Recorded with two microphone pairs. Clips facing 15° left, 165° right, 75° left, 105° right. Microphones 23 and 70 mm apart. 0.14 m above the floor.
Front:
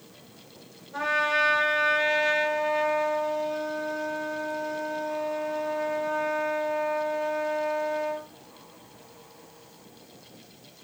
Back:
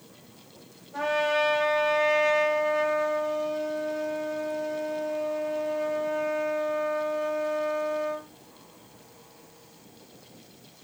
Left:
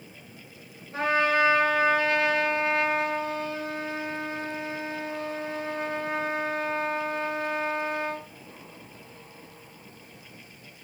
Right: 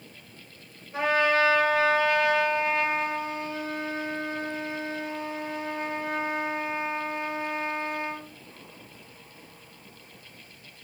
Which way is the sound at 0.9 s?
20° left.